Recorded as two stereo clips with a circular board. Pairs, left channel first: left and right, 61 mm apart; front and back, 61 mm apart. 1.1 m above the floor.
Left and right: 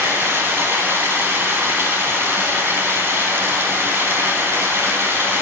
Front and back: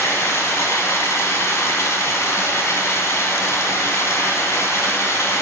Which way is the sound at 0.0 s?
40° right.